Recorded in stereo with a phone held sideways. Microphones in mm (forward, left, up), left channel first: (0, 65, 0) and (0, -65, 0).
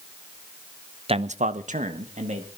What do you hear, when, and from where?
1.1 s a man speaking: 45° right (ahead or behind), 0.8 m; by 2.5 s 60° right (ahead or behind), 2.5 m